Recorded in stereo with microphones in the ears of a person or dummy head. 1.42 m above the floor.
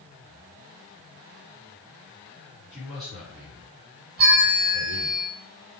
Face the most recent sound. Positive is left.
turn(degrees=-55)  # may be behind; listen again after turning